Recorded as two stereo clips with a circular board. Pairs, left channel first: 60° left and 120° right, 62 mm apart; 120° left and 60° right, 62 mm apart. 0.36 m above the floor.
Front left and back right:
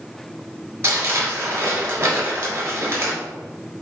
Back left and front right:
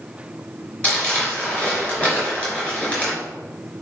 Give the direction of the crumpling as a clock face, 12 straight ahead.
6 o'clock.